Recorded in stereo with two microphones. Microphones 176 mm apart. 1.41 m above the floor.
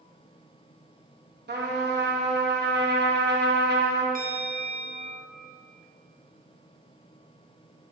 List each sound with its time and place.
1.5 s a trumpet: 65° right (ahead or behind), 0.9 m
4.2 s a bell: 50° right (ahead or behind), 0.6 m